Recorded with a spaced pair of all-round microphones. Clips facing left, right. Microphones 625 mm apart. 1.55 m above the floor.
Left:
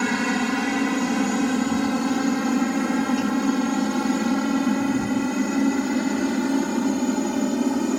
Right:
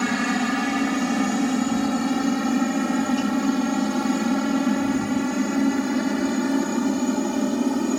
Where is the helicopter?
5° right (ahead or behind); by 8.0 s centre (ahead or behind).